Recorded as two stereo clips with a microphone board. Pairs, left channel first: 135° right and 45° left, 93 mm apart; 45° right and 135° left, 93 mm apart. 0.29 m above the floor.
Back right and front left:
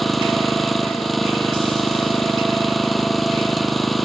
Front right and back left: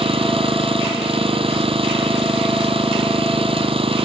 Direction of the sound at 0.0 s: 135° left.